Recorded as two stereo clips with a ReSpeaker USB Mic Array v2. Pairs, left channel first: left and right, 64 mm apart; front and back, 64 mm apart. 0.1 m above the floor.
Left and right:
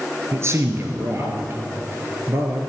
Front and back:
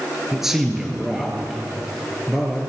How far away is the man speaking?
About 1.7 m.